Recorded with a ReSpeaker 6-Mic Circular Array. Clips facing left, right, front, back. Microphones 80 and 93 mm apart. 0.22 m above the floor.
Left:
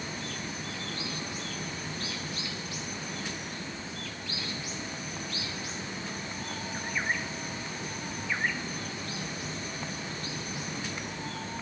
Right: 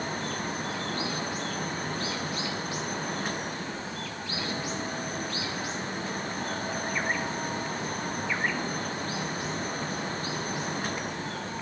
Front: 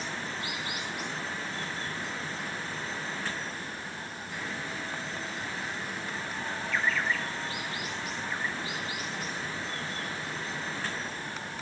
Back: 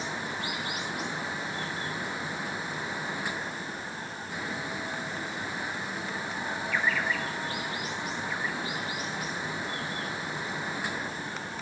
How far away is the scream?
No scream in this recording.